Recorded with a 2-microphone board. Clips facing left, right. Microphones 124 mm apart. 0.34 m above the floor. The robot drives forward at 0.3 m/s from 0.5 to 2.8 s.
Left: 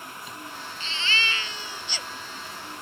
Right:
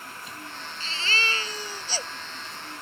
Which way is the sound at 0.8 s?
40° right (ahead or behind).